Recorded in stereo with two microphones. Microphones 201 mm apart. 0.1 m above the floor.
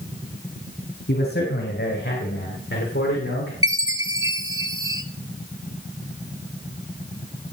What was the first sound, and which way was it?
A man speaking, 60° left (ahead or behind).